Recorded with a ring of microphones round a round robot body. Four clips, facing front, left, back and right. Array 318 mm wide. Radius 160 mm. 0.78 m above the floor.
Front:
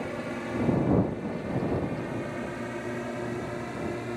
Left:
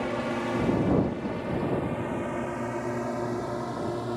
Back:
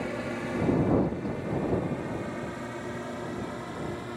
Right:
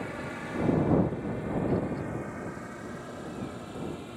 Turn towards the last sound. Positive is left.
turn(degrees=65)